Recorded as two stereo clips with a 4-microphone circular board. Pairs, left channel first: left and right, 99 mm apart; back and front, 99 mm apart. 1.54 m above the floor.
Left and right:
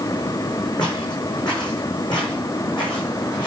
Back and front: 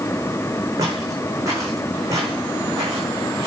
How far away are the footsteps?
About 6.5 m.